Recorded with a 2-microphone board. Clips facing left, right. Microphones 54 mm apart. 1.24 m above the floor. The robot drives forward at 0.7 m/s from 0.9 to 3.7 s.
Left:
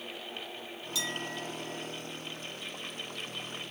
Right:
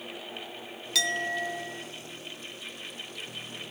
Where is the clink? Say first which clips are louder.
Right 8 dB; 80° right, 0.6 m; by 1.9 s 40° right (ahead or behind), 0.9 m.